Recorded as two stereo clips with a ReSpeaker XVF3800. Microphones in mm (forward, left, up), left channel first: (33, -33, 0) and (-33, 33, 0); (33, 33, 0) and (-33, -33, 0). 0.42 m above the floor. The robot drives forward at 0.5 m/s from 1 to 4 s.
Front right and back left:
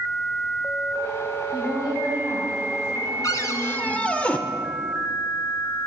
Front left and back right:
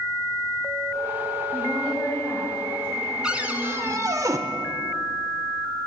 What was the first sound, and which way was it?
A woman speaking, 25° right.